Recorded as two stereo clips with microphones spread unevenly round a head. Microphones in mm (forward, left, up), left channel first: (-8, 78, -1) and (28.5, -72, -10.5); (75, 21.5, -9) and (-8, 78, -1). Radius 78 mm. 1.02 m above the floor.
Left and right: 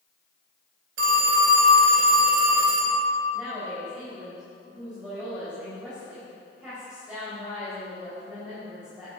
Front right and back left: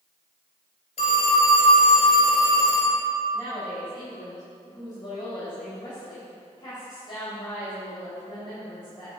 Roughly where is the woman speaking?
Ahead.